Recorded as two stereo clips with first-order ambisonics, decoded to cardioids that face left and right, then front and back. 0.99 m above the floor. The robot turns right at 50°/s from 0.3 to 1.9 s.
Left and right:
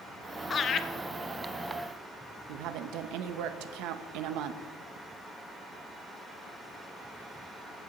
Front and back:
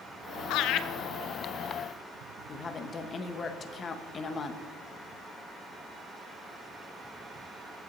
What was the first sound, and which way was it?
Laughter, 20° left.